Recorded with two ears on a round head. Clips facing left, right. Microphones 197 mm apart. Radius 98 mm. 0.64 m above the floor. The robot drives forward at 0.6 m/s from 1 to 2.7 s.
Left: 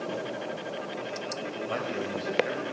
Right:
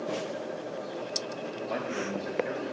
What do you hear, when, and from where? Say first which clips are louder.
1.7 s a man speaking: even; 10° left (ahead or behind), 2.5 m; by 2.7 s 5° left (ahead or behind), 3 m